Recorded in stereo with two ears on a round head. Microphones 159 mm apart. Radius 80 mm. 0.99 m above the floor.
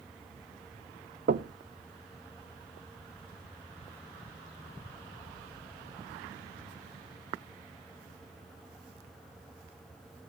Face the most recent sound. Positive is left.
turn(degrees=-45)  # may be behind; listen again after turning